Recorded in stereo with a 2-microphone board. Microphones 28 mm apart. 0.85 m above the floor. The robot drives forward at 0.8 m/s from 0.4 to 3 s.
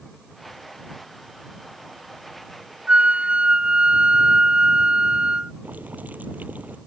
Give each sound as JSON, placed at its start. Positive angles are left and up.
{"t": 2.9, "sound": "a flute", "side_deg": -45}
{"t": 5.6, "sound": "boiling", "side_deg": -70}